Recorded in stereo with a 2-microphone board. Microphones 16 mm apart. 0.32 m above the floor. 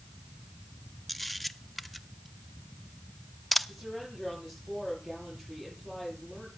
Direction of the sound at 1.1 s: 5° left (ahead or behind).